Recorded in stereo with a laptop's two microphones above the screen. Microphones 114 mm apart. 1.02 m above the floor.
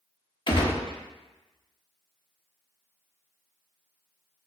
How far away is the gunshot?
About 0.7 m.